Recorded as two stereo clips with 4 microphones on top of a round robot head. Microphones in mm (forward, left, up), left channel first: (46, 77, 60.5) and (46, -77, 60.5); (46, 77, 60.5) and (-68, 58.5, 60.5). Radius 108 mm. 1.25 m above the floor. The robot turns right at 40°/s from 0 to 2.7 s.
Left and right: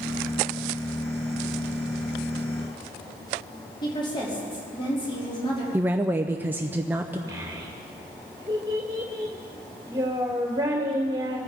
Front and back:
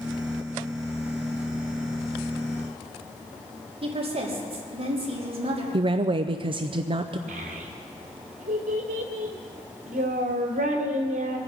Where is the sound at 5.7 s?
165° right, 0.6 m.